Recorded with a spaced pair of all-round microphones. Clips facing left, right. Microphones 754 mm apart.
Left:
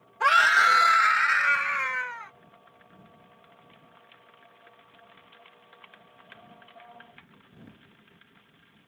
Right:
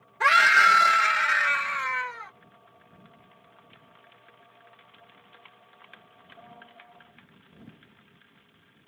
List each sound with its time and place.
0.2 s a scream: 50° right (ahead or behind); by 2.3 s 65° right (ahead or behind)